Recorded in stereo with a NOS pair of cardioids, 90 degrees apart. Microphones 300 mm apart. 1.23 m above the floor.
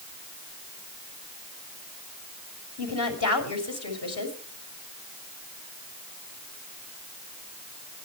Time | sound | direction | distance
2.8 | a woman speaking | 55° left | 6 m